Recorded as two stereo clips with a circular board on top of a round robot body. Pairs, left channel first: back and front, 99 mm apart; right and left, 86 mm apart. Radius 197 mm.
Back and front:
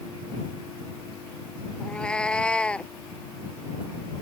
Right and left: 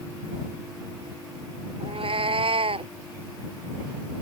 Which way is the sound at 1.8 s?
100° left.